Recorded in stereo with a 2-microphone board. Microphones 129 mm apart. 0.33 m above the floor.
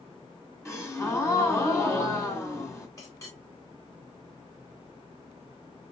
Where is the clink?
25° left (ahead or behind), 2.5 m.